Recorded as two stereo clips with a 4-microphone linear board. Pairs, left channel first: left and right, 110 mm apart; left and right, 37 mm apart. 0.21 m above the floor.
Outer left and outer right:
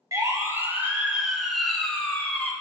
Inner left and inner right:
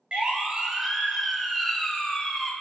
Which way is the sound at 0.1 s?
30° right (ahead or behind).